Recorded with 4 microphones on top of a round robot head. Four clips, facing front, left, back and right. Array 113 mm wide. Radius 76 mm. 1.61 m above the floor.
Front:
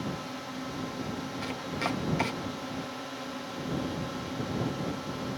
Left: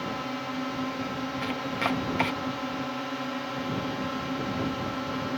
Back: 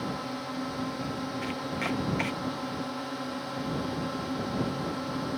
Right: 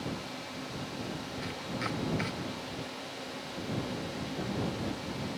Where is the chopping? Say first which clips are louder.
Left 7 dB, back 1 dB; 65° left.